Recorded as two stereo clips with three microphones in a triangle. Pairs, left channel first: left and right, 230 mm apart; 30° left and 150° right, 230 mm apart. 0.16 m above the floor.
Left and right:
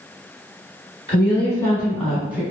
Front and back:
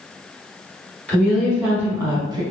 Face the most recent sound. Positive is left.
turn(degrees=-150)